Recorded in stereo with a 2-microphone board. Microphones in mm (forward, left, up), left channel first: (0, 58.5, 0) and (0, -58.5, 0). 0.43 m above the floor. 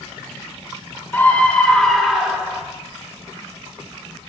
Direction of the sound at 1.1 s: 15° left (ahead or behind).